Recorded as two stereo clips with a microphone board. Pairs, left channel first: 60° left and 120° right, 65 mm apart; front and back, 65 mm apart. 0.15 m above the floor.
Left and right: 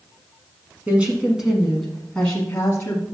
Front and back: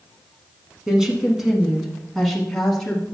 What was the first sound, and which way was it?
A woman speaking, 120° right.